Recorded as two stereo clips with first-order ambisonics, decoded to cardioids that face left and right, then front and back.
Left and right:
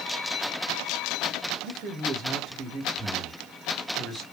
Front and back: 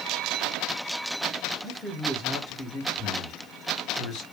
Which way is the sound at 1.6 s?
90° right.